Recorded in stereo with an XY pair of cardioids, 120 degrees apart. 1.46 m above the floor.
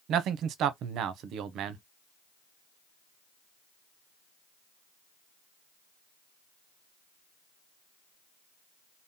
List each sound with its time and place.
0.1 s a man speaking: 65° right, 0.8 m